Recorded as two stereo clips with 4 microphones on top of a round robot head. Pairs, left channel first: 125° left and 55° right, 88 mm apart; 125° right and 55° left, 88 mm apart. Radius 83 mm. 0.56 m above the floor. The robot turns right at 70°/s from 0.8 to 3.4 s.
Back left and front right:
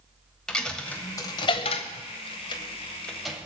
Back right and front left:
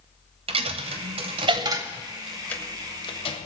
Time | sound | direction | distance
0.5 | a dropped coin | 40° left | 0.7 m